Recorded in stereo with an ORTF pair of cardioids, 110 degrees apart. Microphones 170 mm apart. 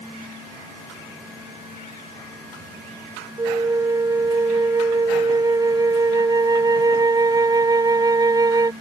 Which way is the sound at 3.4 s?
25° right.